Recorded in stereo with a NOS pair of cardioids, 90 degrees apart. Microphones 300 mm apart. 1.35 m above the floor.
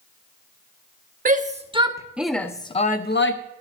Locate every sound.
1.2 s a shout: 30° right, 1.4 m; by 3.4 s 45° left, 1.0 m